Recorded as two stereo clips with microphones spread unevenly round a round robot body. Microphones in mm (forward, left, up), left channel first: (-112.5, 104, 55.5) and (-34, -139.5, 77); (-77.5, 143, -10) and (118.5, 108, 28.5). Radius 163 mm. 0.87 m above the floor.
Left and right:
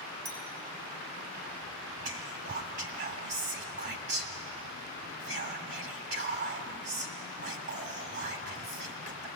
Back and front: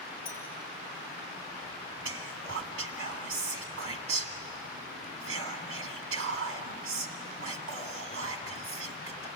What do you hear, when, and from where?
0.2 s a clink: 125° right, 4.5 m
2.0 s whispering: 25° right, 1.7 m